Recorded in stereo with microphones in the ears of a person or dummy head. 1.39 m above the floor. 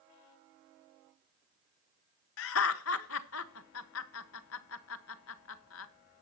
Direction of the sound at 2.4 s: 85° left.